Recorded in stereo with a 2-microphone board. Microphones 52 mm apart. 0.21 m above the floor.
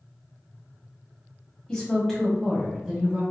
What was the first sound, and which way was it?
A woman speaking, 15° left (ahead or behind).